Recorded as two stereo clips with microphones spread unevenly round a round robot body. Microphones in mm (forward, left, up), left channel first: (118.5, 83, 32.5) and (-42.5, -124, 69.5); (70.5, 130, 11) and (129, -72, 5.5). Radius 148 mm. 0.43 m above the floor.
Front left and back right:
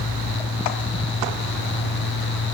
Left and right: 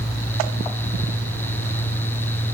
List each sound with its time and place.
Only background noise.